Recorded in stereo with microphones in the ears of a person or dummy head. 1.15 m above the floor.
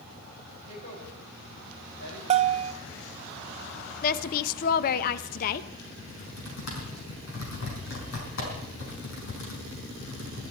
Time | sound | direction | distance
0.7 | a woman speaking | 40° left (ahead or behind) | 6 m
2.3 | a bell | 30° right (ahead or behind) | 0.6 m
4.0 | a woman speaking | 50° left (ahead or behind) | 0.7 m
6.0 | typing on a keyboard | 65° left (ahead or behind) | 5.5 m